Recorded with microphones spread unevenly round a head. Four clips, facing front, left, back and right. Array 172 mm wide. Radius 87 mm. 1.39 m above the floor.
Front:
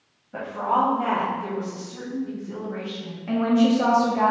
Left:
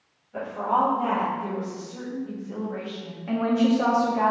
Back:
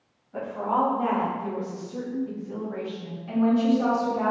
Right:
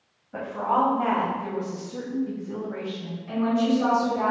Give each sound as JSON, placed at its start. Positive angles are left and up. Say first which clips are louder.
{"t": 0.3, "sound": "a woman speaking", "louder": "even, front 2 dB", "azimuth_deg": -45, "distance_m": 1.7}
{"t": 3.3, "sound": "a woman speaking", "louder": "left 1 dB, front 2 dB", "azimuth_deg": 40, "distance_m": 0.8}